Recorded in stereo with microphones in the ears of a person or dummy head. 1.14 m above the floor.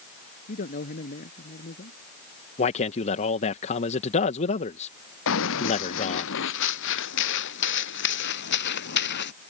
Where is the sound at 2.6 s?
35° left (ahead or behind).